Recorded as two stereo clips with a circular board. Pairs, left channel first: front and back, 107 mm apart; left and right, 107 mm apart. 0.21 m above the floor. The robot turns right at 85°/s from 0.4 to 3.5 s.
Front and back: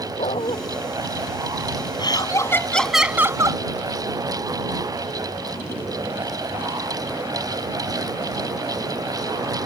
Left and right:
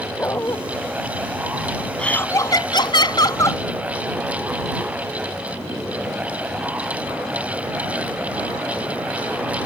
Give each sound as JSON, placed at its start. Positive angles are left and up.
{"t": 0.2, "sound": "a dog barking", "azimuth_deg": 20}
{"t": 2.0, "sound": "laughter", "azimuth_deg": 10}